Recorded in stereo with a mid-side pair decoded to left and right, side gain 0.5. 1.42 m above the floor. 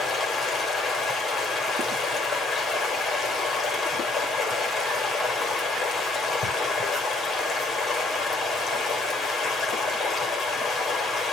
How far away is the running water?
About 5.5 m.